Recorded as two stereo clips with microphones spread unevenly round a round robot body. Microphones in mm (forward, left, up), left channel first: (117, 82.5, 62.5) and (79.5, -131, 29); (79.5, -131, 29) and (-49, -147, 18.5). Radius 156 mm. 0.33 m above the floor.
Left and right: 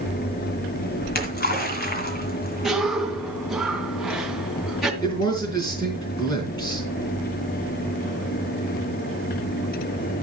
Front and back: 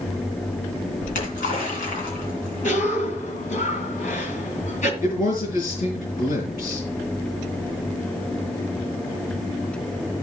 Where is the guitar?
No guitar in this recording.